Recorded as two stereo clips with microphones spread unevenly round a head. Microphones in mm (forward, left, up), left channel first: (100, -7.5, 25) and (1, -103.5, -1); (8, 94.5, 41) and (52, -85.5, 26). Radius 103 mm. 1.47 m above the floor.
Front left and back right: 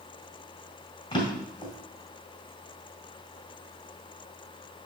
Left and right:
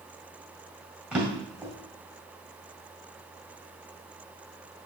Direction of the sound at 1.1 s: 10° left.